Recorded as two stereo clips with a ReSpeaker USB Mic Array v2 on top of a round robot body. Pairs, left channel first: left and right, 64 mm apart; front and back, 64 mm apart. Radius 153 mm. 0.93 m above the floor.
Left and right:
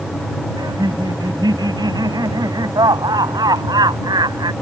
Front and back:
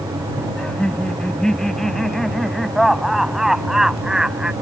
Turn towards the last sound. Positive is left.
turn(degrees=-100)